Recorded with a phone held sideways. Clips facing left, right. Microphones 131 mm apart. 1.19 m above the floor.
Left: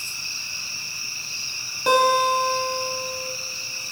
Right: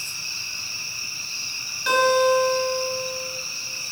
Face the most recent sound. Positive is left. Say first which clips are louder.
# right 1 dB
turn(degrees=50)  # may be behind; listen again after turning